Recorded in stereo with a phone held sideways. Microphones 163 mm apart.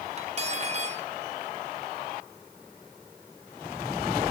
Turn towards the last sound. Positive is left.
turn(degrees=-40)  # may be behind; listen again after turning